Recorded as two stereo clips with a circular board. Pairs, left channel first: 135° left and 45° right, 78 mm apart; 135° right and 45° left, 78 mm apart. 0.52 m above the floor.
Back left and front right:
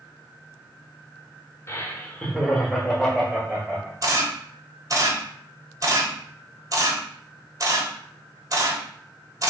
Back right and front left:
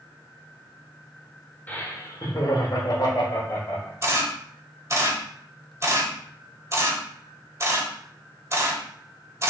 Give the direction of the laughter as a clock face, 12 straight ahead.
6 o'clock.